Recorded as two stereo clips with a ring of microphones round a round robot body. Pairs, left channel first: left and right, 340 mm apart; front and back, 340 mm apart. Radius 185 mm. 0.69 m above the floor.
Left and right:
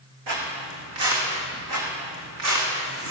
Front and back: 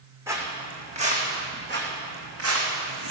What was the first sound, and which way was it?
Footsteps, 100° right.